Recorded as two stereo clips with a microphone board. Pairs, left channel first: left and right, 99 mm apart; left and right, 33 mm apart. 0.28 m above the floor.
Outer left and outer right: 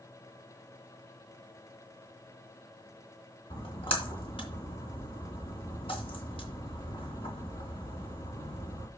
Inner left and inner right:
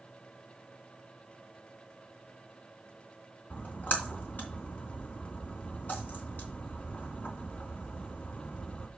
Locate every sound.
3.5 s a splash: 65° left (ahead or behind), 3 m